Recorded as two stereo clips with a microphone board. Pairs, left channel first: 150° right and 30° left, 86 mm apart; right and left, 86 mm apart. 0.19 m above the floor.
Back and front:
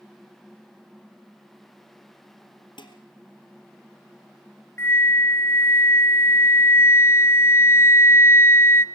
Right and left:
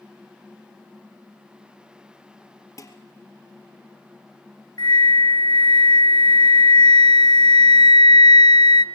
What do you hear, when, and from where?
2.8 s dishes clattering: 135° right, 2.5 m
4.8 s a flute: 95° right, 1.1 m